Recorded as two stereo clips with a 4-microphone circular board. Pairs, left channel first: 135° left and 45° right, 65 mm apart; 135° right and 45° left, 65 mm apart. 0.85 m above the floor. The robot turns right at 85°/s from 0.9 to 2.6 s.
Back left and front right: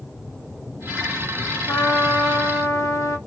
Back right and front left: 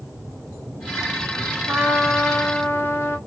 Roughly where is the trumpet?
Left.